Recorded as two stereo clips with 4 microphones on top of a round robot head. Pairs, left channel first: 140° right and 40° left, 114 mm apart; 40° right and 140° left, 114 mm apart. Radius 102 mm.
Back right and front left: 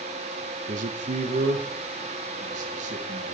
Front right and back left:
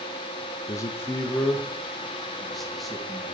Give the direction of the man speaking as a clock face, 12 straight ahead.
11 o'clock.